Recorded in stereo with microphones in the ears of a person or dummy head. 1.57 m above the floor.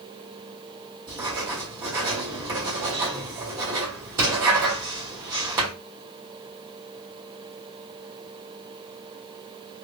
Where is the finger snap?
I don't hear a finger snap.